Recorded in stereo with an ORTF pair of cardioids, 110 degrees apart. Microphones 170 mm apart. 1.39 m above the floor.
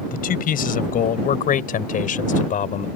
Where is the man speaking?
60° left; by 2.9 s 50° left.